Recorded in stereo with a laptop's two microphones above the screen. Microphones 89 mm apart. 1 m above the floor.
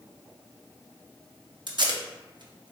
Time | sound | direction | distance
1.7 | tape being pulled | 55° right (ahead or behind) | 0.6 m